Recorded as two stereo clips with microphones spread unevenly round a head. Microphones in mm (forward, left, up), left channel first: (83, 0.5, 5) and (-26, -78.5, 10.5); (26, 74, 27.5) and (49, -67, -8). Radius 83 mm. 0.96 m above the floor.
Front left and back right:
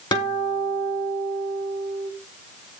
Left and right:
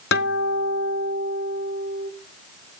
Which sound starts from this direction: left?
A guitar, at 0.1 s.